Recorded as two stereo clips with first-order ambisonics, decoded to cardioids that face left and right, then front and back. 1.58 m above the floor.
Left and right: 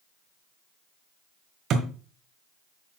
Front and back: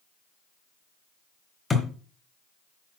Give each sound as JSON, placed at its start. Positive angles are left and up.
{"t": 1.7, "sound": "a thud", "azimuth_deg": -70, "distance_m": 1.7}